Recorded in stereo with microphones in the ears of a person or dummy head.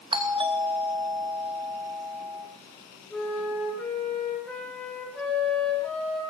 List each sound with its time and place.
0.1 s a doorbell: 25° right (ahead or behind), 1.5 m
3.1 s a flute: 5° left (ahead or behind), 3 m